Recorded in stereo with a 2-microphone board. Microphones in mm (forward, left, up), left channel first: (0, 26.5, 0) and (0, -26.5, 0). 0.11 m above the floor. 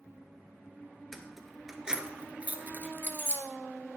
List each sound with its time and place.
1.1 s keys jangling: 5° left (ahead or behind), 1.1 m; by 3.4 s 50° right (ahead or behind), 1.2 m